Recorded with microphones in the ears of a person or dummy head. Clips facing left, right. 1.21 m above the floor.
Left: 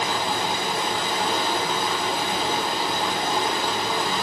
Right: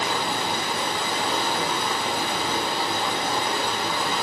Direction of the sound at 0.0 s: 75° right (ahead or behind).